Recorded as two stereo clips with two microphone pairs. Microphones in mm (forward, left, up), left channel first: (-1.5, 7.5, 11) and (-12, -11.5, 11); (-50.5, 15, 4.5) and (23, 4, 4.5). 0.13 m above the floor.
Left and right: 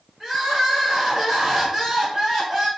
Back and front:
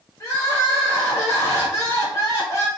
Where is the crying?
175° left, 1.4 m.